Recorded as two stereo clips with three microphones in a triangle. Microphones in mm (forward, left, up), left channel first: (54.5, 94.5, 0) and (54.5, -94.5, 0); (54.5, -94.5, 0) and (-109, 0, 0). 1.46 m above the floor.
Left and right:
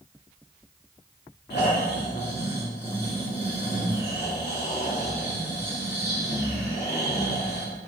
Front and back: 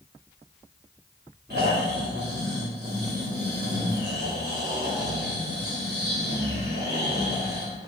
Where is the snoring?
120° left, 1.9 m.